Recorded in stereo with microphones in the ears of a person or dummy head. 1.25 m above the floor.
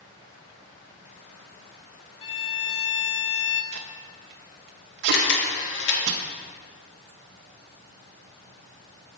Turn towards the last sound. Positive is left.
turn(degrees=60)  # may be behind; listen again after turning